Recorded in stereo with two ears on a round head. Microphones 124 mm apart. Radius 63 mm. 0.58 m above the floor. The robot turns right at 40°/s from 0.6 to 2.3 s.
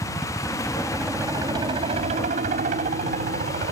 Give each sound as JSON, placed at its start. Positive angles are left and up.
{"t": 0.0, "sound": "a helicopter", "azimuth_deg": 175}